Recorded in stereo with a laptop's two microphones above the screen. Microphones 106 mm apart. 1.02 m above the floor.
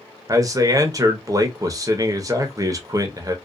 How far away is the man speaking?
About 0.8 m.